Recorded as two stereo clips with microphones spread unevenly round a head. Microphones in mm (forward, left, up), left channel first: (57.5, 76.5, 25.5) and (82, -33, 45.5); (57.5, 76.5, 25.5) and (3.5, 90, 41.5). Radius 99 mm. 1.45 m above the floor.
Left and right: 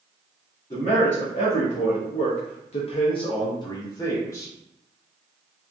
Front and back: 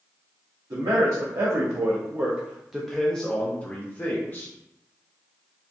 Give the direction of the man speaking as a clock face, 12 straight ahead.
7 o'clock.